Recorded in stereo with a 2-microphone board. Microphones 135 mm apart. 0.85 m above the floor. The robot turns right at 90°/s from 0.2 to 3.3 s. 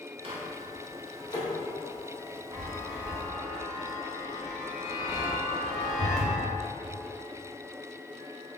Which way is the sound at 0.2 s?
40° right (ahead or behind).